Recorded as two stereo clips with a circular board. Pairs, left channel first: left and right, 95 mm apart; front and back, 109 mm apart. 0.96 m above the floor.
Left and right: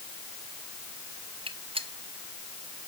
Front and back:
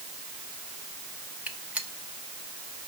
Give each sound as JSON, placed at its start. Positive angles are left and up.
{"t": 1.5, "sound": "a gunshot", "azimuth_deg": -105, "distance_m": 0.8}